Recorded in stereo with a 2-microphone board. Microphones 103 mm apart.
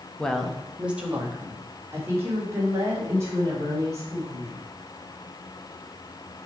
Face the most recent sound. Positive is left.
turn(degrees=-30)  # may be behind; listen again after turning